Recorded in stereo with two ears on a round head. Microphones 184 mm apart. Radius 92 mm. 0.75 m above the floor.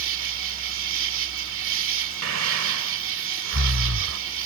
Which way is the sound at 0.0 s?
65° right (ahead or behind).